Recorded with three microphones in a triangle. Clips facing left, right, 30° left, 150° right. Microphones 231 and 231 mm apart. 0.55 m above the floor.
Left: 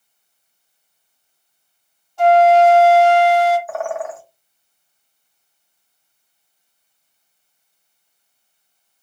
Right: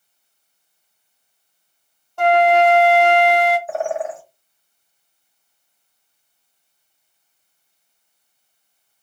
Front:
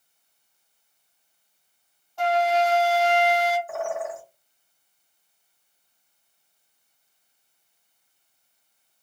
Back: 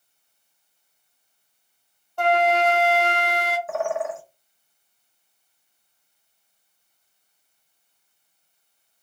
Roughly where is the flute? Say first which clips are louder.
Left 3 dB, back 2 dB; behind right.